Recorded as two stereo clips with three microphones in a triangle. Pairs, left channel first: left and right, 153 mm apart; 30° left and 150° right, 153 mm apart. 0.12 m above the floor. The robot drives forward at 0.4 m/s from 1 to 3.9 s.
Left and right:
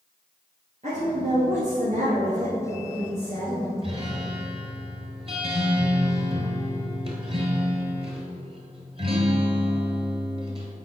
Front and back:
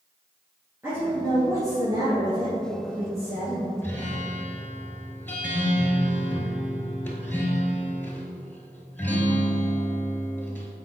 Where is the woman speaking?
80° right, 1.8 m; by 3.7 s 120° right, 2.0 m.